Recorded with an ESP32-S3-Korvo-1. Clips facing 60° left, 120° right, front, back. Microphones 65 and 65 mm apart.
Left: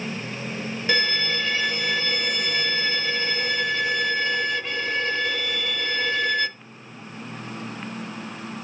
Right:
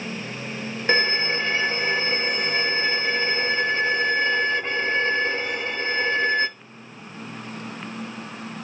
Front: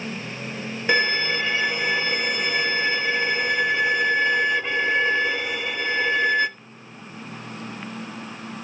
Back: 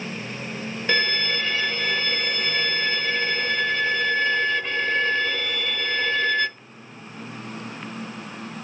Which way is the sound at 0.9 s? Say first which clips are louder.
Right 3 dB, front 2 dB; 75° right.